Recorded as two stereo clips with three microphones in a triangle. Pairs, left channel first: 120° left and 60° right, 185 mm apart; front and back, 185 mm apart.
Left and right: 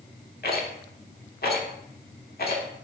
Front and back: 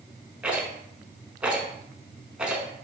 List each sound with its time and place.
0.4 s a rattle: 95° left, 0.6 m